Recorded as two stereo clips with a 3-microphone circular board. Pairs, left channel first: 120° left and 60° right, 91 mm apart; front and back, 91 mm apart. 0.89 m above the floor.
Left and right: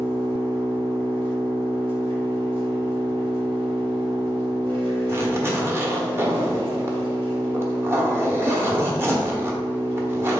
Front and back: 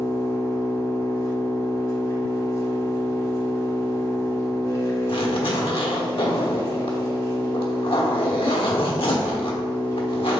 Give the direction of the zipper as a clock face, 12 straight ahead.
12 o'clock.